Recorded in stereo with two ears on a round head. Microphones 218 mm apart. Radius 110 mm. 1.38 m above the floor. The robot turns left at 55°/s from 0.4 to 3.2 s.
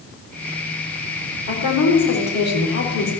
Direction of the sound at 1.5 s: 125° left.